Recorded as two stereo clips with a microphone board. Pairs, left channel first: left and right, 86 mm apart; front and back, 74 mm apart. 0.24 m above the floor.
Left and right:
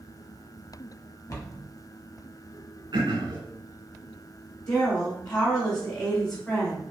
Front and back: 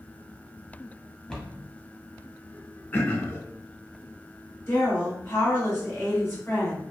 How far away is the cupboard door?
About 0.7 m.